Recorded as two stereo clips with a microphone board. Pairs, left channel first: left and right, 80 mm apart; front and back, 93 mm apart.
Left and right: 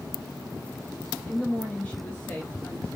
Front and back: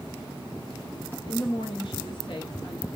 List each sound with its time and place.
1.3 s a woman speaking: 15° left, 0.8 m